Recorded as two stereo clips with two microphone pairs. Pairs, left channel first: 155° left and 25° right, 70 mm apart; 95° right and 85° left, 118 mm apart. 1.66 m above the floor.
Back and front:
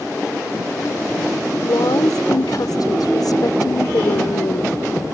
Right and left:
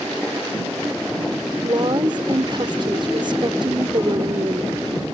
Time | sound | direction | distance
1.6 | a woman speaking | 130° left | ?